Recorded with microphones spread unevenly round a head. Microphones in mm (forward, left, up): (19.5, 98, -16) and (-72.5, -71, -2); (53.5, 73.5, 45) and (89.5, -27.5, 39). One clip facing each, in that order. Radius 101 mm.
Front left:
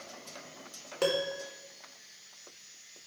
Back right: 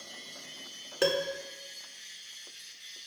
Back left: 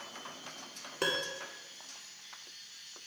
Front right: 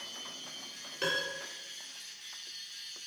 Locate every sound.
1.0 s a piano: 160° left, 1.0 m